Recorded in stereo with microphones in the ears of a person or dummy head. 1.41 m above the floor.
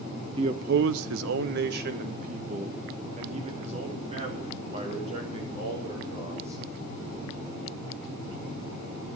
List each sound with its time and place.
0.4 s a man speaking: 30° right (ahead or behind), 0.7 m; by 6.6 s 35° right (ahead or behind), 6 m